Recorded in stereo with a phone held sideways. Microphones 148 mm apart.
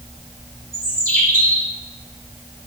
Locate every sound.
0.7 s a bird: 80° right, 5.5 m